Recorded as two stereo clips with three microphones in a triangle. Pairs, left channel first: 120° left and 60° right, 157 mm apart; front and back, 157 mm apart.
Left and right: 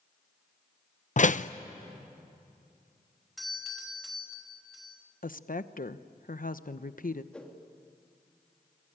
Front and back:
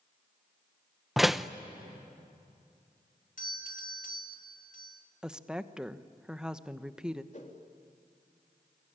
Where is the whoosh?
35° left, 3.5 m.